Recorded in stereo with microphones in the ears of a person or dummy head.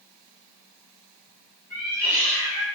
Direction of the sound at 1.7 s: 15° left (ahead or behind).